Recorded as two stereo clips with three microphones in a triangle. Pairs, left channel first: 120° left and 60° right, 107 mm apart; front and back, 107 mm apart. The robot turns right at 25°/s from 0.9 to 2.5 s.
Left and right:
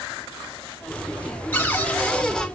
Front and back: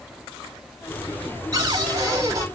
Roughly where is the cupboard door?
Behind.